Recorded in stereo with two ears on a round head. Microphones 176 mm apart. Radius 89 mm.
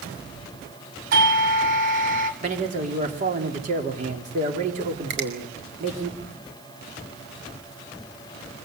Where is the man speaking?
40° right (ahead or behind), 4 m.